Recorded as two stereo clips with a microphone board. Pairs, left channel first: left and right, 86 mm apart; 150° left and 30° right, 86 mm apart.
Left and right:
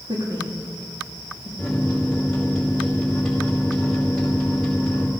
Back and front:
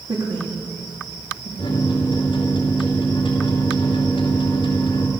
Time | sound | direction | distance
0.1 | a woman speaking | 55° right | 3.5 m
1.6 | a microwave | 170° left | 2.5 m